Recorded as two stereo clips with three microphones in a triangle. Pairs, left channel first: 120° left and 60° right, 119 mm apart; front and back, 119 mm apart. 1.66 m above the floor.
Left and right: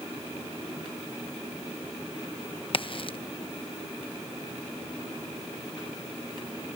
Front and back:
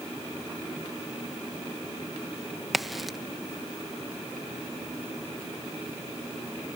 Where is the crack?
90° left.